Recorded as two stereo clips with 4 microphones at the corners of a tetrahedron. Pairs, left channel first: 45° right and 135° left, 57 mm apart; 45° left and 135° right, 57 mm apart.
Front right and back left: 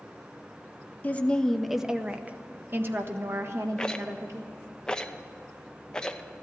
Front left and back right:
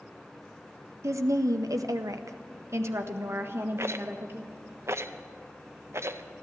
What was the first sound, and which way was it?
A woman speaking, 105° right.